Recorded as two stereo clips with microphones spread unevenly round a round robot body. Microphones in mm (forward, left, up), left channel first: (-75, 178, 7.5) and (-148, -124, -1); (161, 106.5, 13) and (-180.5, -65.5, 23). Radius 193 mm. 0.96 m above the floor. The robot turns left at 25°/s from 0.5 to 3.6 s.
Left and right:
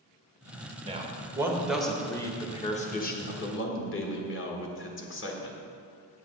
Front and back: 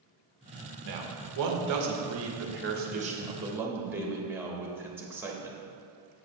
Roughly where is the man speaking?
Behind.